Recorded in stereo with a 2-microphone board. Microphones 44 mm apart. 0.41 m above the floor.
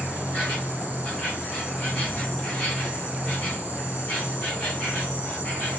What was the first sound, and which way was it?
An insect, 30° left (ahead or behind).